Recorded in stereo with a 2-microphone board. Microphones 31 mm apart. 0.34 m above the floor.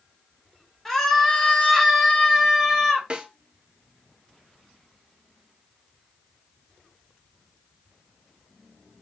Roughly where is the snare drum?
Right.